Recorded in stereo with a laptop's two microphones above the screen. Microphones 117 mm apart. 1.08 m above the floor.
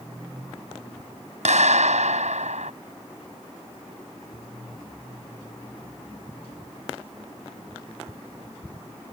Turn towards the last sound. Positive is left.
turn(degrees=-75)  # may be behind; listen again after turning